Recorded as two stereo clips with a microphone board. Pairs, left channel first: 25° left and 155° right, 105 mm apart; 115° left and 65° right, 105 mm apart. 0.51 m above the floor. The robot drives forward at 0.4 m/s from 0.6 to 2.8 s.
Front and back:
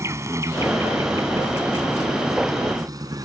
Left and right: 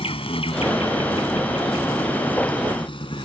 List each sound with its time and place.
0.0 s an insect: 140° left; by 3.2 s 150° left